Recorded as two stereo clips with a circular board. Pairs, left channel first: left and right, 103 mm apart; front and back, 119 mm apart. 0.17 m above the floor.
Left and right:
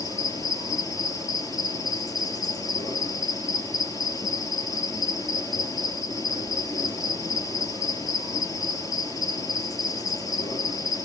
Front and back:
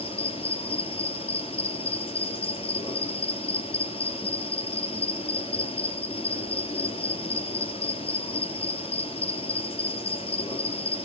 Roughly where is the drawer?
No drawer in this recording.